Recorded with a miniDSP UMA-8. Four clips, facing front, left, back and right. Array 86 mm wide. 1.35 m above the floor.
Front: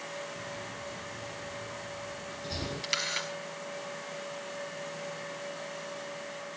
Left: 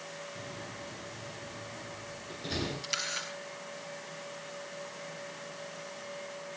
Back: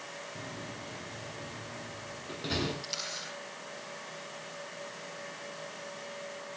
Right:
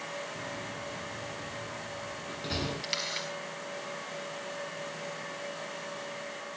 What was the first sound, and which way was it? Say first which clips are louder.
A door slam: right 4 dB, front 2 dB; 150° right.